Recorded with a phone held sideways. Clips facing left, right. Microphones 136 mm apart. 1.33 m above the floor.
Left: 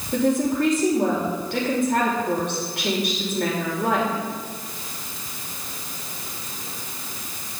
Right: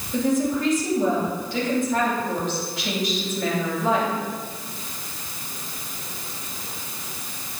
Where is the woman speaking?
65° left (ahead or behind), 5.5 m.